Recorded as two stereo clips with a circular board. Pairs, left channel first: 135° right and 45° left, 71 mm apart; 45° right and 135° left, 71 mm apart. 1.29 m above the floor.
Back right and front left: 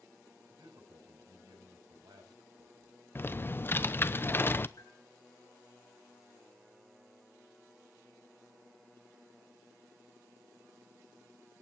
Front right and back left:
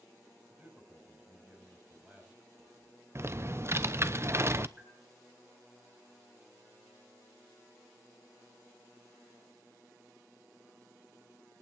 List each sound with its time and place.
0.5 s a man speaking: 60° left, 7 m
3.1 s typing on a keyboard: 175° left, 0.7 m
4.8 s a bell: 155° right, 7 m